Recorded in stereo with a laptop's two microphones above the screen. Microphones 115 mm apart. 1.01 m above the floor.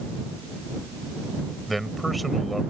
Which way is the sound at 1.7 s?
Centre (ahead or behind).